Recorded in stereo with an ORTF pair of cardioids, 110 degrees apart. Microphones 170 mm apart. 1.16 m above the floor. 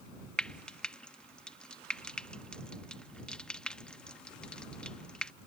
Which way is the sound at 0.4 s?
5° left.